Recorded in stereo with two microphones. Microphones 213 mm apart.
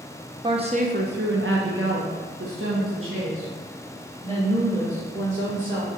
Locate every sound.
0.4 s a woman speaking: 20° right (ahead or behind), 0.6 m; by 5.9 s 70° right (ahead or behind), 3 m